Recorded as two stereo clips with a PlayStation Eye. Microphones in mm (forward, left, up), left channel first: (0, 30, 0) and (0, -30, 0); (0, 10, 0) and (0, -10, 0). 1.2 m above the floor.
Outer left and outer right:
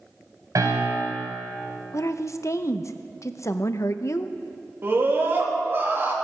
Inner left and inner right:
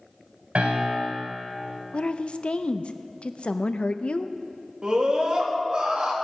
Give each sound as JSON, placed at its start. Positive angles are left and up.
{"t": 0.6, "sound": "a piano", "side_deg": -80, "distance_m": 4.0}
{"t": 1.9, "sound": "a woman speaking", "side_deg": 55, "distance_m": 0.6}
{"t": 4.8, "sound": "a scream", "side_deg": -40, "distance_m": 2.5}